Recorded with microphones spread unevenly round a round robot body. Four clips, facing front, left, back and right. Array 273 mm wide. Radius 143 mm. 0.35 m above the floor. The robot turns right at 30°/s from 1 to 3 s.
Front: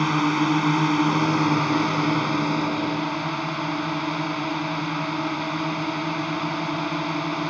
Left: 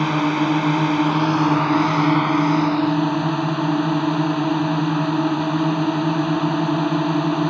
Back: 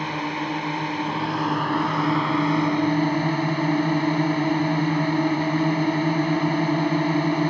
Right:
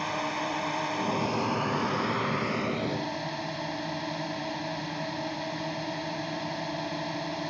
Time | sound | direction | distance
0.0 | a drone | 65° left | ?